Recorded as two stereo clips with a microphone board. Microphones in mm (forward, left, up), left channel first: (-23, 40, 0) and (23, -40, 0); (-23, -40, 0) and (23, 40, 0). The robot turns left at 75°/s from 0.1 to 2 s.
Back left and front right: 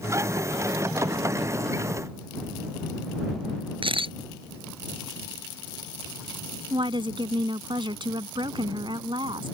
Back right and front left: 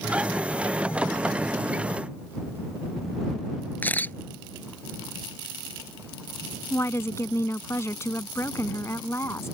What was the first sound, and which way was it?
A camera shutter, 50° right.